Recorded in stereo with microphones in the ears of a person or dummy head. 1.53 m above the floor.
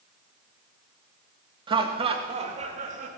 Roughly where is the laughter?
Right.